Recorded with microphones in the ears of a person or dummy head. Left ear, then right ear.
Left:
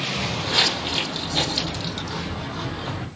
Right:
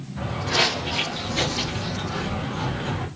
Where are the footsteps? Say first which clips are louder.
Even; 30° left (ahead or behind), 3 m; by 3.1 s 60° left (ahead or behind), 3.5 m.